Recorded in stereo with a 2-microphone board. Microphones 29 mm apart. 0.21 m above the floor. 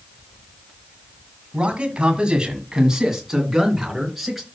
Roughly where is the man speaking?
Right.